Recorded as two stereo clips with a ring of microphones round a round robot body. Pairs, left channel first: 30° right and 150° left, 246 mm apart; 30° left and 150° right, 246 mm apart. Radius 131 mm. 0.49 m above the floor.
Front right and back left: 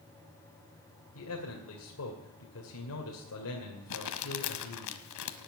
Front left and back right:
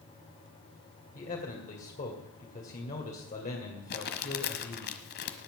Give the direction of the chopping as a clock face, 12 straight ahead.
No chopping in this recording.